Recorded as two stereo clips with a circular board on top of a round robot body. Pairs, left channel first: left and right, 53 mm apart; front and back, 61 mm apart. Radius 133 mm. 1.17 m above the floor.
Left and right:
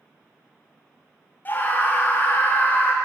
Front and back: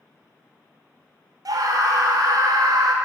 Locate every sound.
1.4 s a scream: 150° left, 0.7 m